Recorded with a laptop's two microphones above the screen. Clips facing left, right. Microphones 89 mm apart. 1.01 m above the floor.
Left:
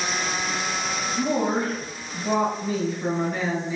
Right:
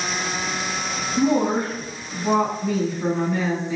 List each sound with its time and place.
1.2 s a woman speaking: 70° right (ahead or behind), 1.7 m